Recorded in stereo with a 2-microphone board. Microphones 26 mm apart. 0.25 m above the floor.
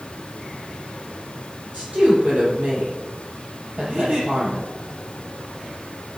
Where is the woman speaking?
80° right, 7 m.